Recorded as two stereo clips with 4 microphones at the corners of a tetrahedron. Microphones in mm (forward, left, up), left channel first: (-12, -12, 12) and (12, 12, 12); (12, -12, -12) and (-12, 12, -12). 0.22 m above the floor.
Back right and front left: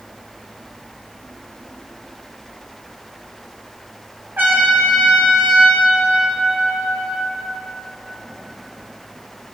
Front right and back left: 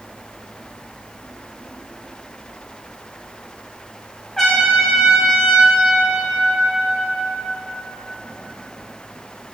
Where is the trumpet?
30° left, 4 m.